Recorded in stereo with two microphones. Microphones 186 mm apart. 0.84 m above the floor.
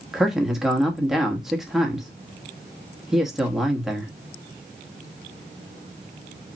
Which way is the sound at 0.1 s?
Centre (ahead or behind).